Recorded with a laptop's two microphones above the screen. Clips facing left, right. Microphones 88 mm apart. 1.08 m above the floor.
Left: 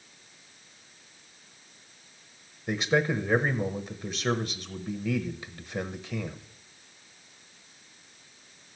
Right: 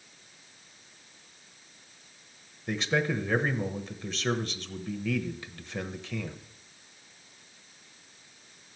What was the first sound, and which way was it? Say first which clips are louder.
A man speaking: left 3 dB; 15° left (ahead or behind).